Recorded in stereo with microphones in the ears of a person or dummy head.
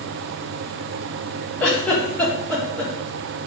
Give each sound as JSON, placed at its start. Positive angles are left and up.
{"t": 1.6, "sound": "a giggle", "side_deg": 10, "distance_m": 3.0}